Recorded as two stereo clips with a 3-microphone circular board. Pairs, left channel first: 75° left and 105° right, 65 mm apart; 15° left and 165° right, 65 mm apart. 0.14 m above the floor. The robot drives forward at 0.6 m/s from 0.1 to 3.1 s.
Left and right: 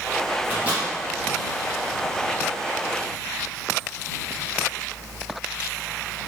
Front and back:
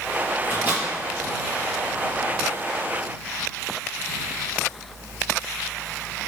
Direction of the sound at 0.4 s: 145° right.